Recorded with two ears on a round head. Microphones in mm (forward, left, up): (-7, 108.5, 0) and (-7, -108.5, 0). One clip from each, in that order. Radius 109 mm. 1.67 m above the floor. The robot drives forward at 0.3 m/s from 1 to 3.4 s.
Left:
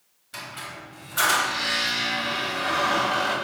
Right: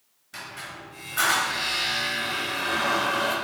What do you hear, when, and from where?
0.3 s a squeak: 5° left (ahead or behind), 1.7 m